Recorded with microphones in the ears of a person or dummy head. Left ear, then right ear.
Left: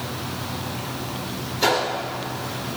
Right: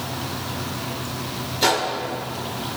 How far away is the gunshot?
About 3 m.